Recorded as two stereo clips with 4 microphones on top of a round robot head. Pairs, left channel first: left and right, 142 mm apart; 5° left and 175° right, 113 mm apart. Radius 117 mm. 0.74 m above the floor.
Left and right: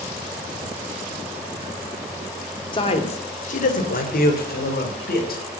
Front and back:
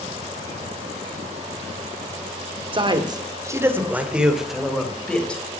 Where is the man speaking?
145° left, 2.5 m; by 5.4 s 85° left, 4.5 m.